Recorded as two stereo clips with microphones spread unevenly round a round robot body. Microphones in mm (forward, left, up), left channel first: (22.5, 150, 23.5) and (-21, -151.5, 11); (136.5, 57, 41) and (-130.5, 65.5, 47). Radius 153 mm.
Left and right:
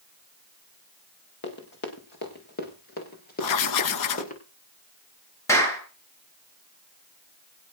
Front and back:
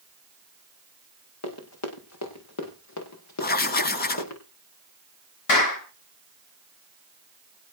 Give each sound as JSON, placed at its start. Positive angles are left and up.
{"t": 1.4, "sound": "running footsteps", "azimuth_deg": 25, "distance_m": 7.5}
{"t": 3.4, "sound": "writing", "azimuth_deg": 55, "distance_m": 1.2}
{"t": 5.5, "sound": "a clap", "azimuth_deg": 0, "distance_m": 7.0}